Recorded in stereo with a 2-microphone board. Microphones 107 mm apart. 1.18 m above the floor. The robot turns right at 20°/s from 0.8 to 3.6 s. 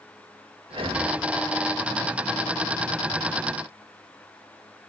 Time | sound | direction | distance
0.7 | breathing | 55° right (ahead or behind) | 1.4 m